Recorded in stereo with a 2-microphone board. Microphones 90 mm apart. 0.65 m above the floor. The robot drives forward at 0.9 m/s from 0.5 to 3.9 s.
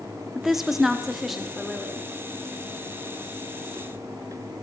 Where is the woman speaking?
5° right (ahead or behind), 0.5 m; by 2.1 s centre (ahead or behind), 1.7 m.